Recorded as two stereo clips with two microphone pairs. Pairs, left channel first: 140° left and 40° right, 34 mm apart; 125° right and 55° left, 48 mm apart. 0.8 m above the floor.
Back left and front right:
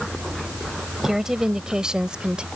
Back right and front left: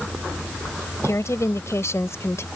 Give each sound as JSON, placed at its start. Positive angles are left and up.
{"t": 1.0, "sound": "a woman speaking", "azimuth_deg": -120}